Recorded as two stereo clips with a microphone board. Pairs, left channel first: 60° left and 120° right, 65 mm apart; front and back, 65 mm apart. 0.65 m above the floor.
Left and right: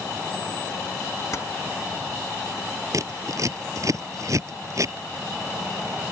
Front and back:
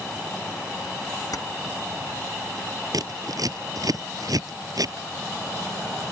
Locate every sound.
1.3 s keys jangling: 20° left
2.9 s scissors: 155° right